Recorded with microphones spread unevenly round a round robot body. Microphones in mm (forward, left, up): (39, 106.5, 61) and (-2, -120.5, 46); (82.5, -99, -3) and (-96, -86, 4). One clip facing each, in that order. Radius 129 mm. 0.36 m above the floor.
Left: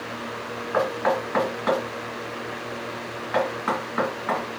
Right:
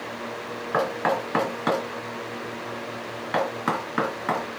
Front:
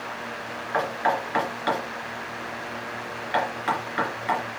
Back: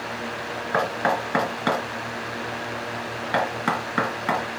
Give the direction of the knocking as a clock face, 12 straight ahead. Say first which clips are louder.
Left 2 dB, back 1 dB; 5 o'clock.